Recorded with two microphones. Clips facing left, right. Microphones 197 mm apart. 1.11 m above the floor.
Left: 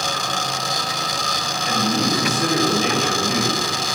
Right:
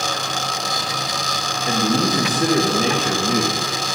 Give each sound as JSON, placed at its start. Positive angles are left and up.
{"t": 1.7, "sound": "a man speaking", "side_deg": -35, "distance_m": 1.1}